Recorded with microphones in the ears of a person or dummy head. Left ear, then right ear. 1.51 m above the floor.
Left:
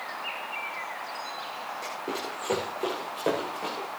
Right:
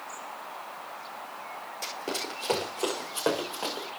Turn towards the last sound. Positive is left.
turn(degrees=-65)  # may be behind; listen again after turning